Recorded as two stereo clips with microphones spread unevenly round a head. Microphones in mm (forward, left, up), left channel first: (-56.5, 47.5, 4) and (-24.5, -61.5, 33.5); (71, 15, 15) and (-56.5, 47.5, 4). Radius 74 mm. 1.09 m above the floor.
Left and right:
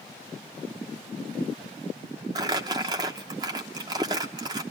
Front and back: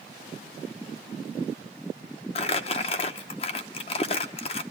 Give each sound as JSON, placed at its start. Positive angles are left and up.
{"t": 2.4, "sound": "crumpling", "azimuth_deg": -40, "distance_m": 0.8}